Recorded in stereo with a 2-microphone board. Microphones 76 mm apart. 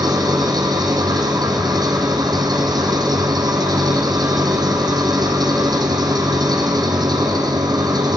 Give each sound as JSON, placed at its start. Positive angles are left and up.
{"t": 0.0, "sound": "an engine running", "side_deg": -65, "distance_m": 1.6}